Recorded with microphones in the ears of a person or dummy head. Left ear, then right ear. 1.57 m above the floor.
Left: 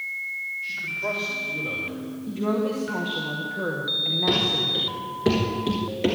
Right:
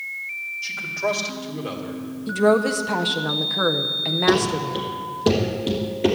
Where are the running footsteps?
5° left (ahead or behind), 1.6 m; by 6.2 s 10° left (ahead or behind), 1.7 m.